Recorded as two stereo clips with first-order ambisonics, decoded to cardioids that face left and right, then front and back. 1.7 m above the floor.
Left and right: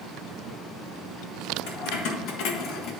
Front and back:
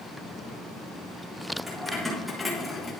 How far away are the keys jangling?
About 2 m.